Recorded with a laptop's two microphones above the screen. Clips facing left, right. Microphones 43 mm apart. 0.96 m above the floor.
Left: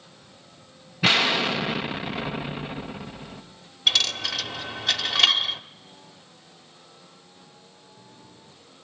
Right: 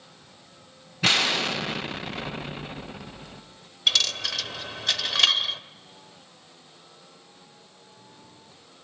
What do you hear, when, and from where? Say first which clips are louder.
1.0 s an explosion: left 2 dB; 10° left (ahead or behind), 0.5 m
3.9 s a dropped coin: left 1 dB; 5° left (ahead or behind), 1.1 m